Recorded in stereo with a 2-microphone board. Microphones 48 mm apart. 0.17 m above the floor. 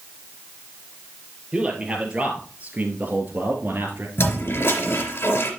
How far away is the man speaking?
About 4 m.